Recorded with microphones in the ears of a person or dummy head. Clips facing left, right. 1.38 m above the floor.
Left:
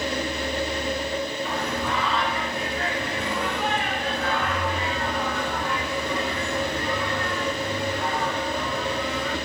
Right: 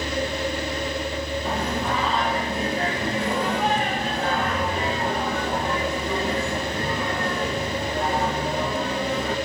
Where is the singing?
30° right (ahead or behind), 1.6 m.